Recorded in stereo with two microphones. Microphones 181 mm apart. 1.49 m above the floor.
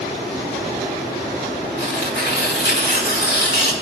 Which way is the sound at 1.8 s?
80° left.